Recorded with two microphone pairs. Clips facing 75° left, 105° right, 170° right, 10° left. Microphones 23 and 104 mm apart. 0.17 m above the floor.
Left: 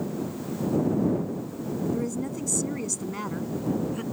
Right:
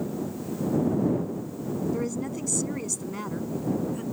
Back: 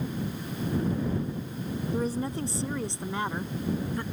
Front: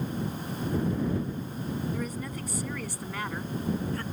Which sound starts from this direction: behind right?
A woman speaking, at 1.9 s.